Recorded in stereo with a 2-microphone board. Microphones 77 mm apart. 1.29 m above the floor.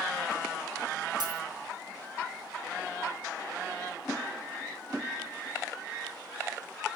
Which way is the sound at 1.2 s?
65° right (ahead or behind).